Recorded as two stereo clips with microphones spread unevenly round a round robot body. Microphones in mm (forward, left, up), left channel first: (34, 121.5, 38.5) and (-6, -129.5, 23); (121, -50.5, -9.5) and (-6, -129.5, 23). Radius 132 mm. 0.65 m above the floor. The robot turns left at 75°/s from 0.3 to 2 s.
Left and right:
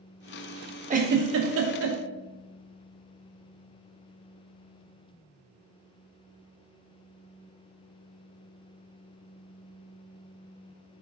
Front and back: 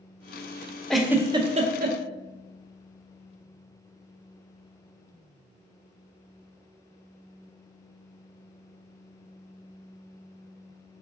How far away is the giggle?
About 0.5 m.